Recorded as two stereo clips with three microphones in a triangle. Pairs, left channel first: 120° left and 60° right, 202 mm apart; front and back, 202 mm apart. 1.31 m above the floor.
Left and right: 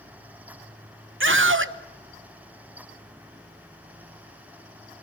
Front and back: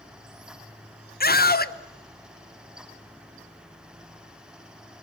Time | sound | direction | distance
1.2 | a scream | 45° right | 0.9 m